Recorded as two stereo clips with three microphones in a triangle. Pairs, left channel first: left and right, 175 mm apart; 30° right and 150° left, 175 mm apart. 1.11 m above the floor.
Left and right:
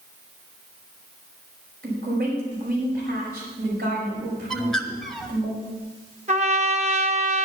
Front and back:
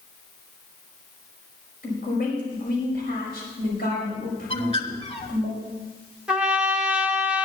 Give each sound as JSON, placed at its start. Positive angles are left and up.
{"t": 1.8, "sound": "a woman speaking", "azimuth_deg": -60, "distance_m": 5.5}
{"t": 4.5, "sound": "a bird", "azimuth_deg": 5, "distance_m": 1.1}
{"t": 6.3, "sound": "a trumpet", "azimuth_deg": -125, "distance_m": 1.0}